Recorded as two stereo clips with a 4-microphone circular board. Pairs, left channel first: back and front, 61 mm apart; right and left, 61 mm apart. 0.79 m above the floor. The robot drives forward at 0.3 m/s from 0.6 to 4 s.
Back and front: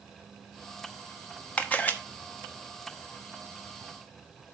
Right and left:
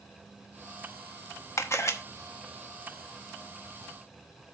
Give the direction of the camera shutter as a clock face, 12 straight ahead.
4 o'clock.